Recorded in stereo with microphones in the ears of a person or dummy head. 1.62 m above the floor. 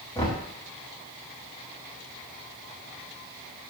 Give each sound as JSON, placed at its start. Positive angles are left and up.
{"t": 0.1, "sound": "knocking", "side_deg": 20, "distance_m": 1.1}